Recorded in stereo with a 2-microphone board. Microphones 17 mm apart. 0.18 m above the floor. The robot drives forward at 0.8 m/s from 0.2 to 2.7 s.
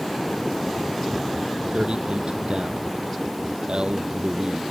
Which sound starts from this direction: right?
A man speaking, at 1.7 s.